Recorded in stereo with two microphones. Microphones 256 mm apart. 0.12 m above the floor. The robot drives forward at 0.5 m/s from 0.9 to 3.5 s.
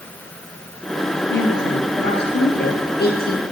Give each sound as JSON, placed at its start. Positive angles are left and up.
{"t": 1.3, "sound": "a woman speaking", "side_deg": 45, "distance_m": 2.5}